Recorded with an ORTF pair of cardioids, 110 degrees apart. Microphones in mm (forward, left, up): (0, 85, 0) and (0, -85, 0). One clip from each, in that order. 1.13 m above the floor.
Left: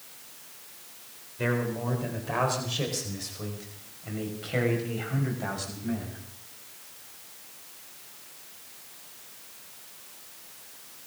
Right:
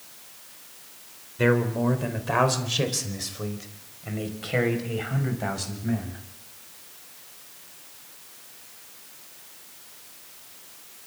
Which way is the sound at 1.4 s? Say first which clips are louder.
Right 7 dB; 40° right.